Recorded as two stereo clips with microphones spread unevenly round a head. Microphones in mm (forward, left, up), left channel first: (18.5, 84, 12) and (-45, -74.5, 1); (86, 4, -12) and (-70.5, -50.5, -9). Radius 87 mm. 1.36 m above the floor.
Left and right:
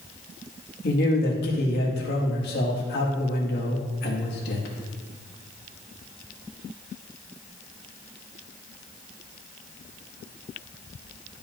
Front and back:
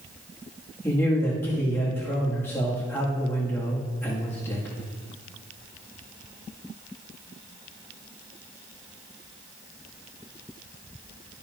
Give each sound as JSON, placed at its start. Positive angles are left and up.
{"t": 0.8, "sound": "a man speaking", "azimuth_deg": 95, "distance_m": 1.9}